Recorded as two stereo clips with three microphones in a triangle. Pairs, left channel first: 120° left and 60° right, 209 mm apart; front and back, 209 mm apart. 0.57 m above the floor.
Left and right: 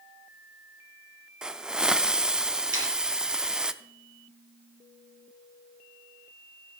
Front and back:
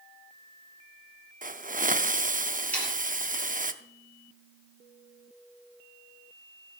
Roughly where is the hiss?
Behind right.